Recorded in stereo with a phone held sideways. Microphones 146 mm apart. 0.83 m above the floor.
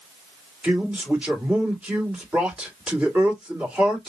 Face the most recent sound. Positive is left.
turn(degrees=-5)  # may be behind; listen again after turning